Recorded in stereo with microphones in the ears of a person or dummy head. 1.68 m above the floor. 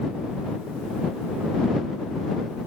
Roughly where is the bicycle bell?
No bicycle bell in this recording.